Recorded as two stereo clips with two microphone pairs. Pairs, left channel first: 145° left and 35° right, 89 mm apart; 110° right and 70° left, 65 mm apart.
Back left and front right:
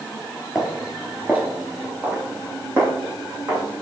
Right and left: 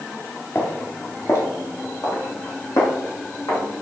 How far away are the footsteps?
About 1.7 m.